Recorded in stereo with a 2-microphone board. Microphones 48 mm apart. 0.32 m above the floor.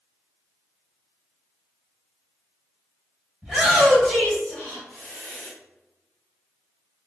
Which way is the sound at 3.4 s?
15° right (ahead or behind).